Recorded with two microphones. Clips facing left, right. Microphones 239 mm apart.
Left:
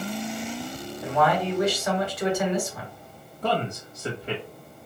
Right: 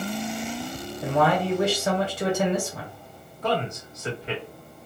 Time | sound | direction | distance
1.0 | a man speaking | 30° right (ahead or behind) | 1.5 m
3.4 | a man speaking | 30° left (ahead or behind) | 1.2 m